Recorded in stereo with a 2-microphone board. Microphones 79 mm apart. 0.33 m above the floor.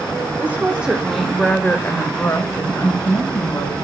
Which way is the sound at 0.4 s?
25° right (ahead or behind).